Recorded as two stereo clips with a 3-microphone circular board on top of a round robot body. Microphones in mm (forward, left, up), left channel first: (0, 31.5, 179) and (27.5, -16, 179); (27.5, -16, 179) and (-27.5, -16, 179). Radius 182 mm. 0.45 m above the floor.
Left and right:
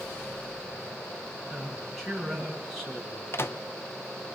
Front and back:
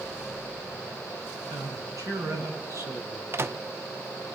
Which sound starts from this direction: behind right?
A man speaking, at 1.5 s.